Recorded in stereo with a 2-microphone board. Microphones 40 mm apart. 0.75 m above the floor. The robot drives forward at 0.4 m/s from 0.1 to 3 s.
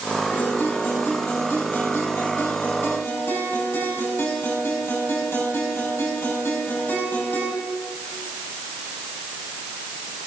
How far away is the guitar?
About 6 m.